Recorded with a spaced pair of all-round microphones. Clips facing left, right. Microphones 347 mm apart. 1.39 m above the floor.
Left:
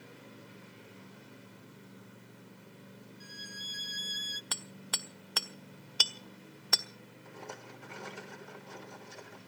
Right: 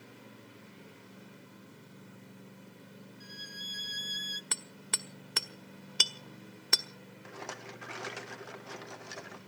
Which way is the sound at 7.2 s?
70° right (ahead or behind).